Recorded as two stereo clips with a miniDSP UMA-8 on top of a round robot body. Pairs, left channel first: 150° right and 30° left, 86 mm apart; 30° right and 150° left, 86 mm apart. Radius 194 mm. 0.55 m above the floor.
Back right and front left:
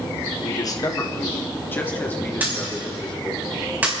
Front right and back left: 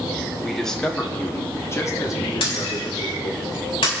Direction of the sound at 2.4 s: 40° right.